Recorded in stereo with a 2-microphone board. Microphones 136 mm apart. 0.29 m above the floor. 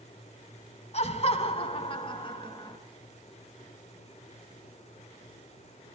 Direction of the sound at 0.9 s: 55° left (ahead or behind).